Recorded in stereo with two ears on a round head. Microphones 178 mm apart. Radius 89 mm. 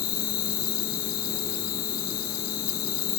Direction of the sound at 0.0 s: 50° left (ahead or behind).